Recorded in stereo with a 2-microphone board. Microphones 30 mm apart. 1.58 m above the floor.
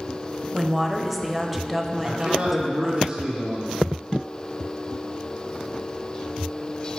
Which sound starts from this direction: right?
A man speaking, at 2.0 s.